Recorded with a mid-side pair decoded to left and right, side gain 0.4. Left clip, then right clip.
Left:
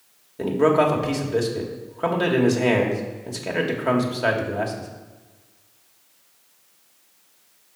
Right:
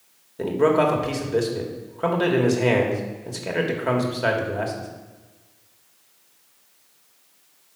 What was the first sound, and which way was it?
A man speaking, 5° left.